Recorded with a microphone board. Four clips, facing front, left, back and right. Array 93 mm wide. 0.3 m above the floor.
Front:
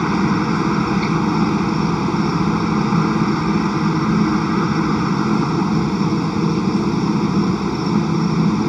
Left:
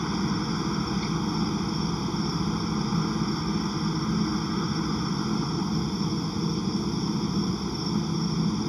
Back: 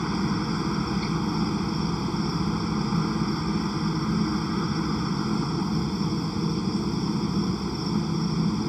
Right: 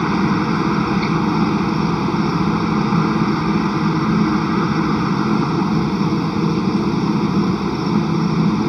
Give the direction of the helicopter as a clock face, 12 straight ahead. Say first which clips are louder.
Right 11 dB, front 9 dB; 2 o'clock.